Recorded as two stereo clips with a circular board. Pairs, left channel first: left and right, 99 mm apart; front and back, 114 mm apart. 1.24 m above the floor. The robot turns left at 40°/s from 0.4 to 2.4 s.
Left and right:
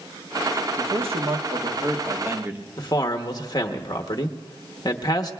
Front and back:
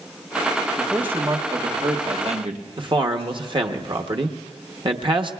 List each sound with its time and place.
0.8 s a man speaking: 95° right, 1.3 m; by 2.6 s 160° right, 1.3 m
2.8 s a man speaking: 135° left, 0.9 m